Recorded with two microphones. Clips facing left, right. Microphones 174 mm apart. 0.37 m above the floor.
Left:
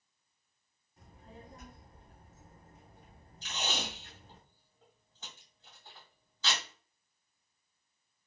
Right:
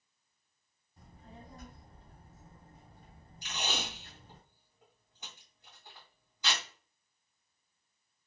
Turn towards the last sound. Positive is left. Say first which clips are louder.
# even
turn(degrees=-15)  # may be behind; listen again after turning